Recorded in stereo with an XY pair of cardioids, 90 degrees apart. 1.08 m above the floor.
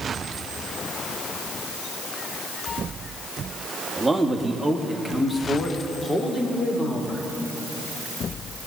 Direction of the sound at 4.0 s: 10° right.